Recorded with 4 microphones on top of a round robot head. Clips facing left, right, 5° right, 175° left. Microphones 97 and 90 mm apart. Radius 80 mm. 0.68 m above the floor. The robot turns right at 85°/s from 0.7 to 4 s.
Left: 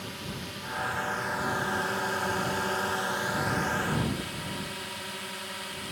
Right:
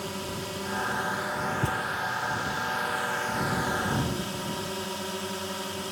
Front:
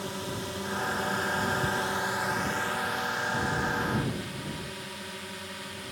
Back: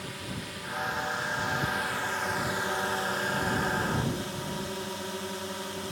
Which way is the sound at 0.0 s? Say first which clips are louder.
Right 5 dB, front 4 dB; 55° right.